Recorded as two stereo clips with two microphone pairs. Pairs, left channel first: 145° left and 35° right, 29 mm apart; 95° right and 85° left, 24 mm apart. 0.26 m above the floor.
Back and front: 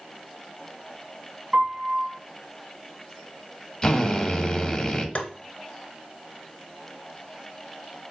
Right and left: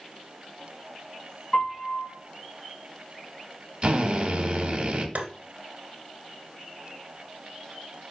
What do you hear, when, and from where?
1.5 s a piano: 90° right, 2 m
3.8 s a drill: 105° left, 0.6 m
5.2 s tapping: 110° left, 0.6 m